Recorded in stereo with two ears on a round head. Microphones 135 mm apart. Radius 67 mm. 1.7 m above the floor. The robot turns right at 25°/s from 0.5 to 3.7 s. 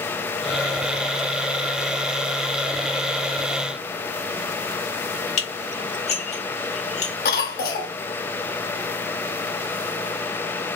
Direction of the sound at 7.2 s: 65° left (ahead or behind).